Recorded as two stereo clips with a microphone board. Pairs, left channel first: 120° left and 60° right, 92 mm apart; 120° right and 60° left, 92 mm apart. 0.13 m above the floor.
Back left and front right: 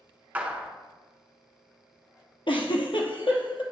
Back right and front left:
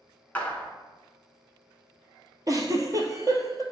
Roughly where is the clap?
Right.